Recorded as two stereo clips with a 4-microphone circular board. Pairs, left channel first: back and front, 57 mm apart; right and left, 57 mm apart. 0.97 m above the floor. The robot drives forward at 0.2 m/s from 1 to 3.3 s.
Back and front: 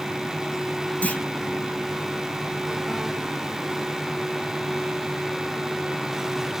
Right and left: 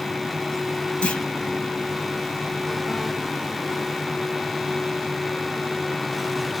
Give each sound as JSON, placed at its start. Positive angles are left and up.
{"t": 1.0, "sound": "a clunk", "azimuth_deg": -140, "distance_m": 0.9}